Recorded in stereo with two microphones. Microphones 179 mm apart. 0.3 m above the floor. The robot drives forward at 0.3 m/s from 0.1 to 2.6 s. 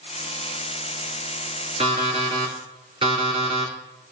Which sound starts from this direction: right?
An alarm clock, at 1.8 s.